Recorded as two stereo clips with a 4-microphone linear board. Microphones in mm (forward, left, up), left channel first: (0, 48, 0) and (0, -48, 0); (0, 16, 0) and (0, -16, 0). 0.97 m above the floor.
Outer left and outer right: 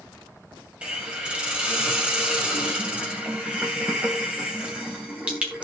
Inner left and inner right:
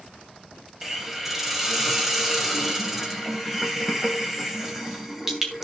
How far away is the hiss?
About 2.5 m.